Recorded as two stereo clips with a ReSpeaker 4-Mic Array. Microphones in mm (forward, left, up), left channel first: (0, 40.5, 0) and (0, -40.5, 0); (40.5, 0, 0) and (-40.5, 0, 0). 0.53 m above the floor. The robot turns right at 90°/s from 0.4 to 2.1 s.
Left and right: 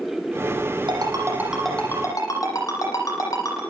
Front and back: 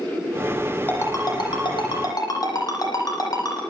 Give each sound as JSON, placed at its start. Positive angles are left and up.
{"t": 0.9, "sound": "a ringtone", "azimuth_deg": -70, "distance_m": 9.5}